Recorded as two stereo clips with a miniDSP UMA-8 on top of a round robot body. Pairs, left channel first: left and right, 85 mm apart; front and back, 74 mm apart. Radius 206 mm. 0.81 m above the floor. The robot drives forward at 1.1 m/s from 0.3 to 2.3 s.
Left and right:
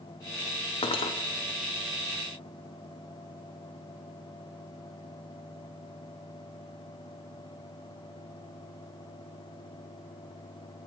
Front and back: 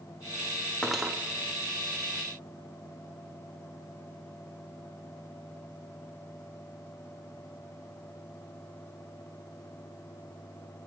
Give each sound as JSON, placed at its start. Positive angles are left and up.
{"t": 0.8, "sound": "cutlery clinking", "azimuth_deg": 75, "distance_m": 0.6}